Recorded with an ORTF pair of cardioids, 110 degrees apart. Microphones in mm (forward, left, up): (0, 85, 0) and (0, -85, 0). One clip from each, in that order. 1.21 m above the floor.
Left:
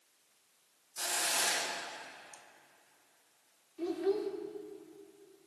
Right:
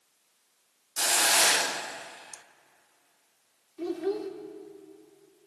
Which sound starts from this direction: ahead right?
A hiss, at 1.0 s.